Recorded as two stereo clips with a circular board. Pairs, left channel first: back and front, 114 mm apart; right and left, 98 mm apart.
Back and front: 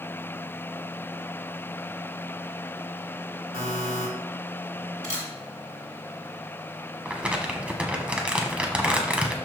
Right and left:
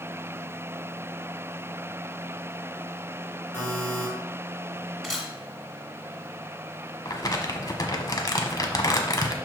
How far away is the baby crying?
No baby crying in this recording.